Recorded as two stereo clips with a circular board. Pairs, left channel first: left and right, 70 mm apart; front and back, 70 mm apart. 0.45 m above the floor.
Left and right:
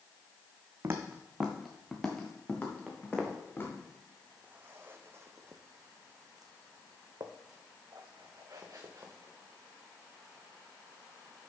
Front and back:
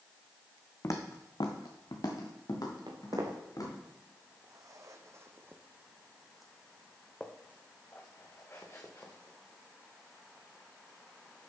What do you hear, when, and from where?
0.8 s footsteps: 40° right, 1.2 m; by 3.7 s 30° left, 4 m
2.9 s footsteps: 175° right, 2.0 m; by 11.5 s 35° right, 3.5 m